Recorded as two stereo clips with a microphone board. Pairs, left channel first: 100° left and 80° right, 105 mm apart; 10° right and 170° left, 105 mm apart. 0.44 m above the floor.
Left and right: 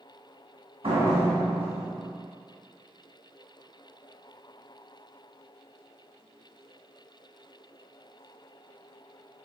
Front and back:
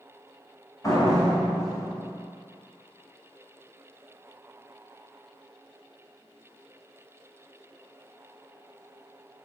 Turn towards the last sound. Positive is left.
turn(degrees=-70)